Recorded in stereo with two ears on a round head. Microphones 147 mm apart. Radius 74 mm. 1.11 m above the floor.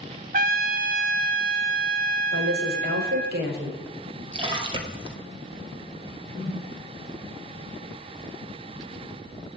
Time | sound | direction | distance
0.3 | a trumpet | 60° right (ahead or behind) | 1.1 m
2.3 | a woman speaking | 65° right (ahead or behind) | 4 m
4.3 | a splash | 35° right (ahead or behind) | 2.0 m
6.3 | a whoosh | 55° right (ahead or behind) | 4.5 m